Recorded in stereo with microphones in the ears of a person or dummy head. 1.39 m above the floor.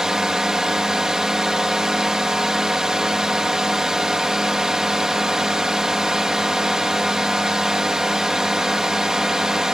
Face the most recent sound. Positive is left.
turn(degrees=0)  # may be behind; listen again after turning